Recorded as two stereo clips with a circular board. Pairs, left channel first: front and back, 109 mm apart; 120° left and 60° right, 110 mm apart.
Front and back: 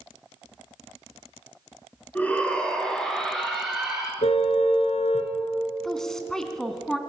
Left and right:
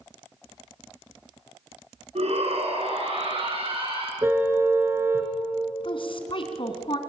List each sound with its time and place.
2.1 s a shout: 75° right, 5.5 m; by 4.1 s 95° right, 7 m
4.2 s a car horn: 10° left, 3 m
5.8 s a woman speaking: 85° left, 3 m